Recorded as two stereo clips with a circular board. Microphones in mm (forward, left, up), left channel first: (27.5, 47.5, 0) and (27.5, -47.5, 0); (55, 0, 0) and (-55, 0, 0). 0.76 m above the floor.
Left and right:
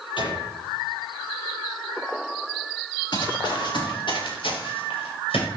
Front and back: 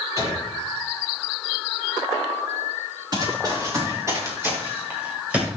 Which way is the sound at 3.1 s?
130° left.